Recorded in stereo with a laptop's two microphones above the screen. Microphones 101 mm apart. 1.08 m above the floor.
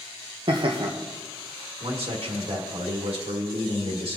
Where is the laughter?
60° right (ahead or behind), 1.0 m.